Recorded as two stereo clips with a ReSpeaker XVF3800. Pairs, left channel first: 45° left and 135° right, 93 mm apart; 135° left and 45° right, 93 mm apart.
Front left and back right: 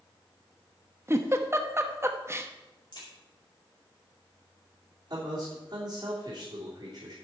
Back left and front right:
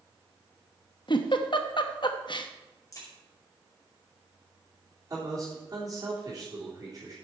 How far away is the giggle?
About 0.9 m.